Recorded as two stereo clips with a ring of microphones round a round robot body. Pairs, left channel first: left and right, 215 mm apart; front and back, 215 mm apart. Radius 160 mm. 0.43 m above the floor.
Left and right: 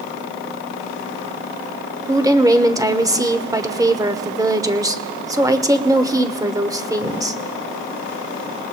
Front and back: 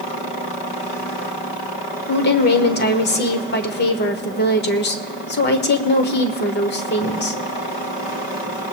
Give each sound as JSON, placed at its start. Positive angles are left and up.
{"t": 2.1, "sound": "a woman speaking", "azimuth_deg": -20, "distance_m": 1.2}